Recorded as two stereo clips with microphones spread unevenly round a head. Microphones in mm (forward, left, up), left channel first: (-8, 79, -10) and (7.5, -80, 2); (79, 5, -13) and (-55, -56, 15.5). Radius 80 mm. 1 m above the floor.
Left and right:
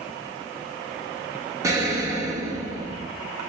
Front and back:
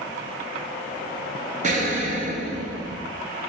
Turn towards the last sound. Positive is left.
turn(degrees=-150)